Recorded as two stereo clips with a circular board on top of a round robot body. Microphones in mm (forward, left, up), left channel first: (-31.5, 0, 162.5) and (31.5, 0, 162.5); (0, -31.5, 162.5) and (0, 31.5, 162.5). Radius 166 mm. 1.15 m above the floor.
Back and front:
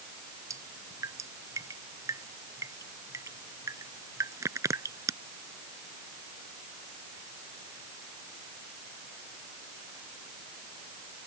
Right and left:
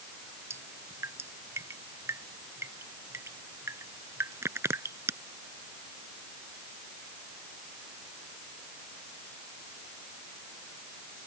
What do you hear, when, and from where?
0.5 s dripping: 40° left